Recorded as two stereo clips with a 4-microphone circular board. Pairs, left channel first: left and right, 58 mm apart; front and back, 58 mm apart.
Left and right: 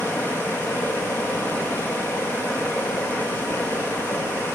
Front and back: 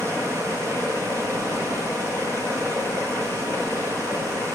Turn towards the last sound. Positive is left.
turn(degrees=150)